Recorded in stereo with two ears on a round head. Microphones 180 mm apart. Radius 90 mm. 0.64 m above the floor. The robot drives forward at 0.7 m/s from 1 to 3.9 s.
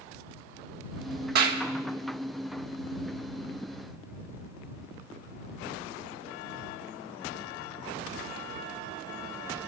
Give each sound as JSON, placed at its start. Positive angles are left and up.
{"t": 1.4, "sound": "a clap", "side_deg": -50, "distance_m": 1.3}